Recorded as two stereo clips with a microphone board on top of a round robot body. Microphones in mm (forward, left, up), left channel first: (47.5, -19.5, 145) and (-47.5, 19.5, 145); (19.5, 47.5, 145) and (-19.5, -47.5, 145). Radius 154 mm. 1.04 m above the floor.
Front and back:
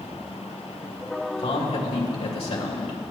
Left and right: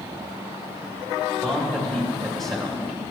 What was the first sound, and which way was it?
A man speaking, 20° right.